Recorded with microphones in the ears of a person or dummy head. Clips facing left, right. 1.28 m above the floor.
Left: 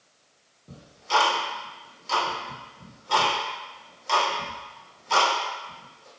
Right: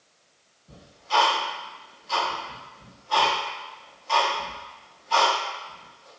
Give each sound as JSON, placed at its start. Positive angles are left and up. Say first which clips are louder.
{"t": 0.7, "sound": "ticking", "louder": "left 1 dB", "side_deg": 60, "distance_m": 0.7}